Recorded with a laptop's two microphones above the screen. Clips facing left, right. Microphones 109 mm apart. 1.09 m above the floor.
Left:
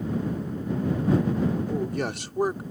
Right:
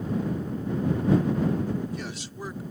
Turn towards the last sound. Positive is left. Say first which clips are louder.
# left 4 dB
turn(degrees=60)  # may be behind; listen again after turning